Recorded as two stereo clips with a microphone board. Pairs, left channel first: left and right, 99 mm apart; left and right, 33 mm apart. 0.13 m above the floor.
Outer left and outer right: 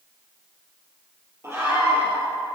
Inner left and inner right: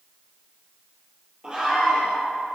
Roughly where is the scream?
Right.